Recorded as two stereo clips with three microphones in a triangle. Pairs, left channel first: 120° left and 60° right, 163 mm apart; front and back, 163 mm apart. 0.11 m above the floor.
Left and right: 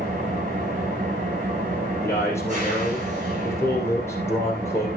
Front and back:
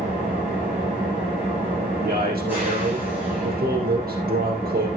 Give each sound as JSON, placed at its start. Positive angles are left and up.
{"t": 0.0, "sound": "an engine running", "azimuth_deg": -100, "distance_m": 6.0}
{"t": 2.0, "sound": "a man speaking", "azimuth_deg": -165, "distance_m": 3.5}